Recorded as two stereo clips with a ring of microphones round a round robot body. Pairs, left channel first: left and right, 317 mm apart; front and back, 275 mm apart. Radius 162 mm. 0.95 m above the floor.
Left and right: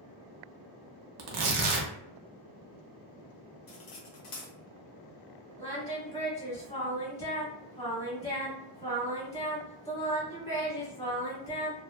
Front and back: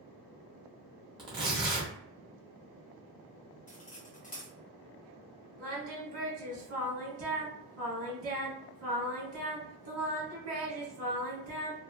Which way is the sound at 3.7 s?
65° left.